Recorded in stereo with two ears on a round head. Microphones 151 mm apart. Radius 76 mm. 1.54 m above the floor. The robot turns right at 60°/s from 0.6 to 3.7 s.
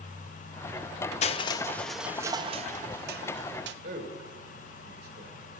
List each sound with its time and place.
1.2 s crushing: 135° left, 0.6 m; by 3.7 s 75° right, 0.6 m
3.8 s a man speaking: 55° right (ahead or behind), 1.6 m